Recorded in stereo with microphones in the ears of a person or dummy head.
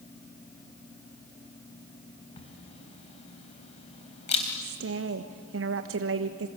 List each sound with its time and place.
2.4 s a camera shutter: 35° left (ahead or behind), 3.5 m
4.6 s a woman speaking: 65° right (ahead or behind), 1.0 m